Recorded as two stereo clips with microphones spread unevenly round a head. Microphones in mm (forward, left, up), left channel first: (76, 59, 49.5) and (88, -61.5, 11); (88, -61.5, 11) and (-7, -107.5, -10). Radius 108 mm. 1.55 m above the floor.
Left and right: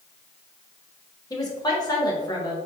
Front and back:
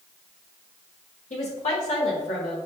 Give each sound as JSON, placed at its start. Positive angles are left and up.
{"t": 1.3, "sound": "a woman speaking", "azimuth_deg": 40, "distance_m": 2.5}